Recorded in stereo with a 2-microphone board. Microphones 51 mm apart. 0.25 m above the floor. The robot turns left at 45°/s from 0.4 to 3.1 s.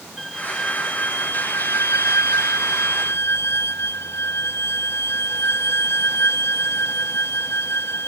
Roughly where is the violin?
Behind.